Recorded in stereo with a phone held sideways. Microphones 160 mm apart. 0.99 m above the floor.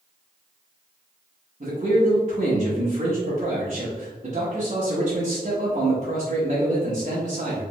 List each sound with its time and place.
1.6 s a man speaking: 45° right (ahead or behind), 1.2 m